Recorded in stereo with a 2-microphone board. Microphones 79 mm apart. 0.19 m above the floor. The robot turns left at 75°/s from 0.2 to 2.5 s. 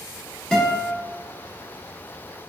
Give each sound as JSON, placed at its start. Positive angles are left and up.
{"t": 0.5, "sound": "a guitar", "side_deg": 10, "distance_m": 0.9}